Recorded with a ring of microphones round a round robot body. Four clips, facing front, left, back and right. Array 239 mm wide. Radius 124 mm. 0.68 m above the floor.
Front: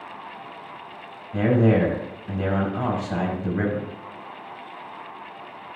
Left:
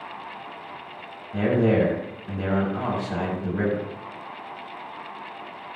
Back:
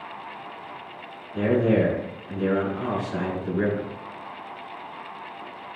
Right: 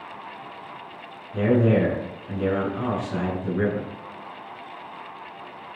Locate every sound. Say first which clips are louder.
1.3 s a man speaking: right 1 dB, front 1 dB; 40° left, 6 m